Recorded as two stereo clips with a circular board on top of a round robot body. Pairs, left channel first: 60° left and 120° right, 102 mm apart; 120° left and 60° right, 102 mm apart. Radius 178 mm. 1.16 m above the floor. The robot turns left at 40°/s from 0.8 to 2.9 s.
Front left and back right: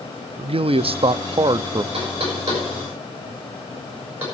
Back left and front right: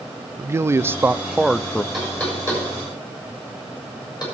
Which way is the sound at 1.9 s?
150° right.